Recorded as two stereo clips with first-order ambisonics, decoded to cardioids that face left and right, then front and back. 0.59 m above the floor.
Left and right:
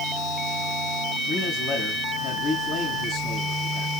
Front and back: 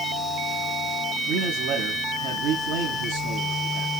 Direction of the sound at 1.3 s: 160° left.